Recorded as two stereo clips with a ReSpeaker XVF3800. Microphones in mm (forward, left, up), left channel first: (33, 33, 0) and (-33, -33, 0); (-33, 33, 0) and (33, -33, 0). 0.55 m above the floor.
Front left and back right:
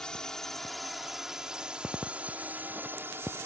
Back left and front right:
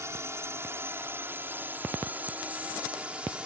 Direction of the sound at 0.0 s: 30° right.